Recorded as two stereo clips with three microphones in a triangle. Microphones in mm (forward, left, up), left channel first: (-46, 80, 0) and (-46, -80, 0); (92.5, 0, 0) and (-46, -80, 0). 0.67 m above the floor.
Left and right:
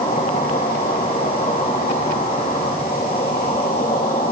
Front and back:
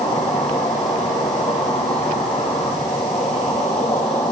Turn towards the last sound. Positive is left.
turn(degrees=75)